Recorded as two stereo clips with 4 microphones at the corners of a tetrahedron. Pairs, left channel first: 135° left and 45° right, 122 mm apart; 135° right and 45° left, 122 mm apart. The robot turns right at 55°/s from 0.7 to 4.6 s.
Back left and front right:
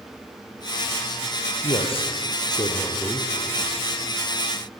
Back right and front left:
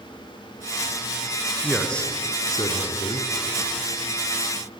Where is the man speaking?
130° left, 2.5 m; by 3.3 s 140° right, 2.5 m.